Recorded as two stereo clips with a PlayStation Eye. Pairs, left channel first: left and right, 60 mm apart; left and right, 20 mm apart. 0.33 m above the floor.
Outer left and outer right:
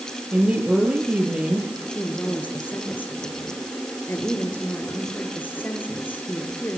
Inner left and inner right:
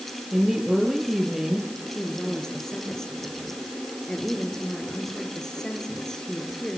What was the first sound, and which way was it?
A woman speaking, 20° right (ahead or behind).